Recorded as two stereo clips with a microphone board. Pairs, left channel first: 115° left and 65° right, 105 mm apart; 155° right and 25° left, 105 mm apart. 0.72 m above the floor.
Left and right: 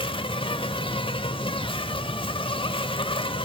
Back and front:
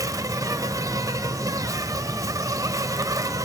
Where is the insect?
80° left, 1.1 m.